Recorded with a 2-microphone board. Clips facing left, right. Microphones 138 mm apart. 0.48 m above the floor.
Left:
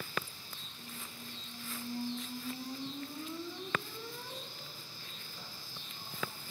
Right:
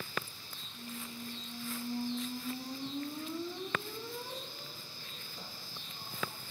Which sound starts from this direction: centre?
A squeak, at 0.7 s.